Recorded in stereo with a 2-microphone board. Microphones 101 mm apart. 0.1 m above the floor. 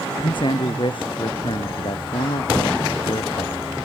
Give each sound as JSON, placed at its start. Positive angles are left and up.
{"t": 0.2, "sound": "a man speaking", "side_deg": 55}